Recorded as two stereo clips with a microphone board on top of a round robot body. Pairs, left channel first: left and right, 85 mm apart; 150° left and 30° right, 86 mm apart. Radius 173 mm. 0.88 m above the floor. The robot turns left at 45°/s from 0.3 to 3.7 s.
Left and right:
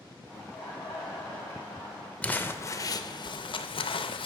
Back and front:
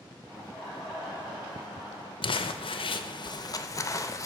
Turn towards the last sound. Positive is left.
turn(degrees=100)